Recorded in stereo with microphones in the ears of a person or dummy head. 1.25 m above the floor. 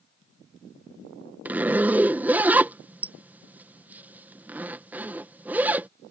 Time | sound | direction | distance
1.4 | a zipper | 10° right (ahead or behind) | ?